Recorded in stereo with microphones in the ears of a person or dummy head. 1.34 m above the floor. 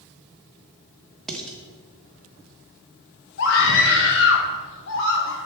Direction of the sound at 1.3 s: Centre (ahead or behind).